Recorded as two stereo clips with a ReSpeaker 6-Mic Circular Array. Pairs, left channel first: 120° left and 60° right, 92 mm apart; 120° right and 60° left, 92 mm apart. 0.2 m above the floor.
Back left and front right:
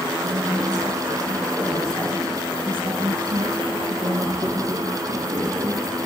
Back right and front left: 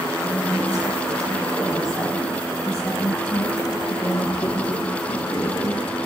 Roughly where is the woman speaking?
Ahead.